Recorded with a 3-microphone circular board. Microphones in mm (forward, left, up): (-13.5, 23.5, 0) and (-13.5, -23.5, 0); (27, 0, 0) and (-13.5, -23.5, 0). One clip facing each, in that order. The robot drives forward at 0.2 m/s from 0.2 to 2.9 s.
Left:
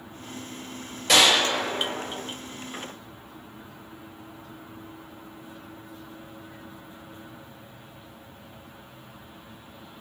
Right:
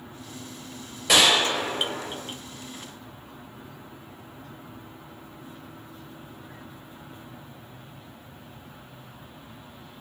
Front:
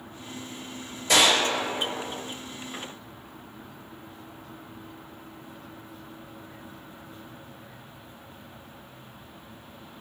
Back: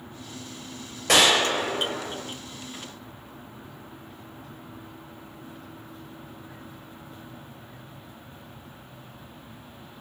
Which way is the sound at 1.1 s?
175° right.